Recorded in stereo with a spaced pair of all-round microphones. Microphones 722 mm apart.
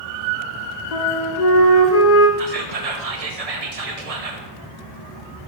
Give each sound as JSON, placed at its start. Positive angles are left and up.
{"t": 0.9, "sound": "a flute", "side_deg": 60, "distance_m": 1.2}
{"t": 2.4, "sound": "whispering", "side_deg": -55, "distance_m": 0.8}